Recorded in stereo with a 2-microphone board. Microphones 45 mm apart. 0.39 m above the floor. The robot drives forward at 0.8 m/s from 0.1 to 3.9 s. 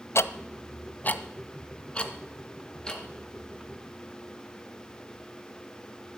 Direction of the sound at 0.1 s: 80° left.